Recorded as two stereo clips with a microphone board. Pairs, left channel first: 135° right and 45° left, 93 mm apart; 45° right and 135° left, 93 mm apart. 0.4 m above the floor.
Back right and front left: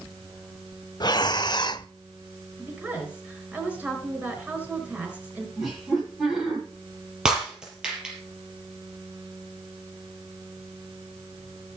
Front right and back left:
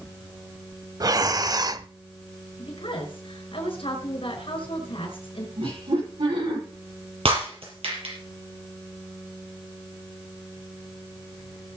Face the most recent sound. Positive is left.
turn(degrees=125)